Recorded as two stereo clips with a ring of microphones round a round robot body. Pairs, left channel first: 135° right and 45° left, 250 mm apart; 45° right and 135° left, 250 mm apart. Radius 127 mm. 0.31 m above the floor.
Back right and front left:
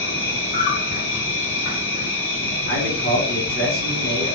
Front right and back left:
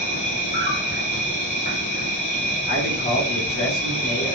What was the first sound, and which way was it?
An insect, 105° right.